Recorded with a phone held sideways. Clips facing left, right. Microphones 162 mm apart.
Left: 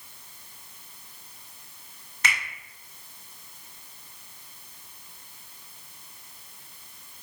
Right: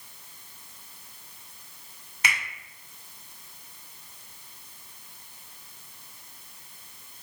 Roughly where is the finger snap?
Centre.